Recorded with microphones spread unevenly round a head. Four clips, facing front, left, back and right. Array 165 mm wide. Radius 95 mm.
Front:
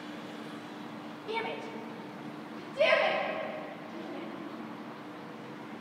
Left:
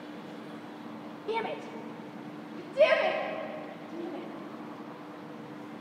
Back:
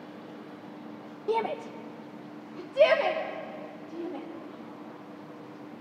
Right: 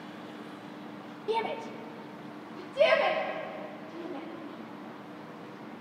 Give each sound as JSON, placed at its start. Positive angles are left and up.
{"t": 1.3, "sound": "a shout", "azimuth_deg": 180, "distance_m": 0.9}